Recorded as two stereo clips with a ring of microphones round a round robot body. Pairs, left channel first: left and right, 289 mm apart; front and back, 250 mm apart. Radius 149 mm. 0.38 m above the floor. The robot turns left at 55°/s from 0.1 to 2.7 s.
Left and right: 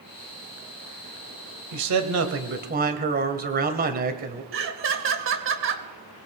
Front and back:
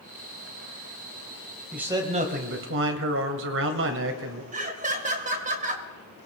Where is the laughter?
125° right, 2 m.